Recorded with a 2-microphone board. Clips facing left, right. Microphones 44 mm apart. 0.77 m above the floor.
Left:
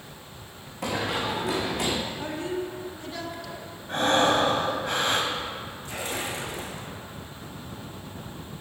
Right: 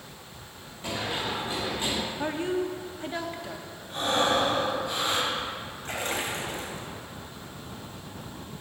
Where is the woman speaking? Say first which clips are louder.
Right 2 dB; 30° right (ahead or behind), 1.2 m.